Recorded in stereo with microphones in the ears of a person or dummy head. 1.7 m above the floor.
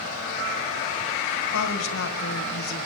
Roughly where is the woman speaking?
Left.